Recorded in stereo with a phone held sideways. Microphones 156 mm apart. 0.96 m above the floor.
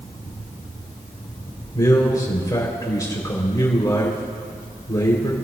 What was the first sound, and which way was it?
A man speaking, 25° left (ahead or behind).